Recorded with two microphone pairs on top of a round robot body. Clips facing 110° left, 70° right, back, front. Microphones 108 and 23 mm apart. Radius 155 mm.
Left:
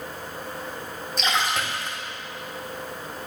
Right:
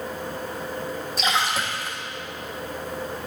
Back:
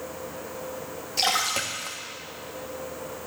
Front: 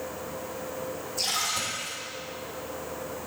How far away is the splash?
About 1.0 m.